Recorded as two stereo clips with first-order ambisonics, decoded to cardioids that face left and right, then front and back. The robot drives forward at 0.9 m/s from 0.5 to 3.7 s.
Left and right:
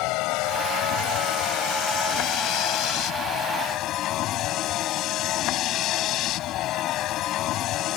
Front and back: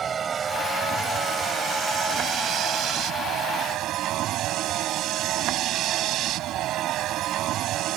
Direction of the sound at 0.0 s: 115° left.